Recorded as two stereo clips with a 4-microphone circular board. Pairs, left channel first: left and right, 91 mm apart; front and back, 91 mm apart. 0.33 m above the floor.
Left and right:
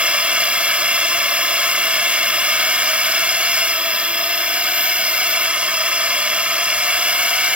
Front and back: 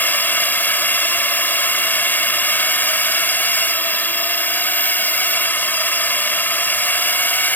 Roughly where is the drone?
Ahead right.